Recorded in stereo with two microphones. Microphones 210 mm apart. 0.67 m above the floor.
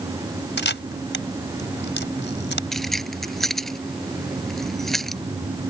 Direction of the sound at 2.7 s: Centre (ahead or behind).